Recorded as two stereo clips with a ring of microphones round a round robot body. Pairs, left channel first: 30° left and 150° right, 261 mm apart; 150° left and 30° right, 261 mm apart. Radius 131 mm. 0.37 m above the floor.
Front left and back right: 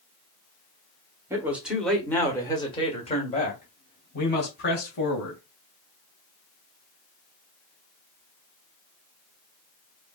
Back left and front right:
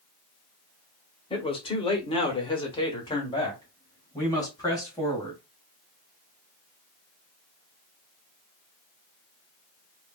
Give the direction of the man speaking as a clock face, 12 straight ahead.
7 o'clock.